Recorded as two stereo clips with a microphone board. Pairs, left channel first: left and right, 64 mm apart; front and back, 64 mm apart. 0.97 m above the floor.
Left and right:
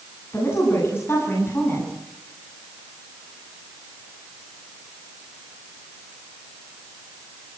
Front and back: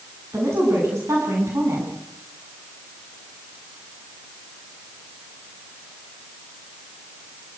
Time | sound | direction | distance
0.3 | a woman speaking | 135° left | 10 m